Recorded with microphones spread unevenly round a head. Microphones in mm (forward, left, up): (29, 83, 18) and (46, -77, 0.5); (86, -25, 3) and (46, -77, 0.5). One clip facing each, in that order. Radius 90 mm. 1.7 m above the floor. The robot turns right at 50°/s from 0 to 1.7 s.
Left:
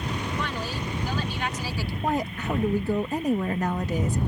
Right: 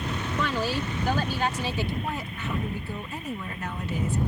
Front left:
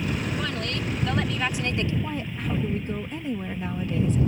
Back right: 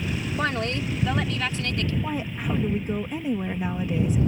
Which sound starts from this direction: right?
A woman speaking, at 0.4 s.